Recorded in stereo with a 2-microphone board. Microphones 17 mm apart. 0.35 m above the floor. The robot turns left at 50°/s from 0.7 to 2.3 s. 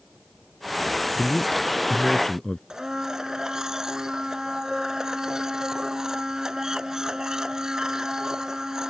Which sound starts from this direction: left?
A man speaking, at 1.2 s.